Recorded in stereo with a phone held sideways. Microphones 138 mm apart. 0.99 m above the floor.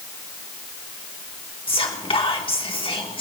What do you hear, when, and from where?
1.7 s whispering: 45° left (ahead or behind), 2 m